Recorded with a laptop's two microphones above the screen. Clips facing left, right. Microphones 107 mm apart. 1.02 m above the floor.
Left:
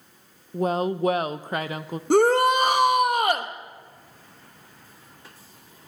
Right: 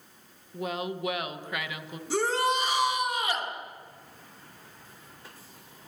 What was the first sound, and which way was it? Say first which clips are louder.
A woman speaking: left 9 dB; 40° left (ahead or behind).